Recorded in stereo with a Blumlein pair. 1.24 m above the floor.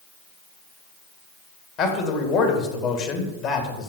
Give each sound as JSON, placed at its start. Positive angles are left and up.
{"t": 1.8, "sound": "a man speaking", "azimuth_deg": 35, "distance_m": 2.0}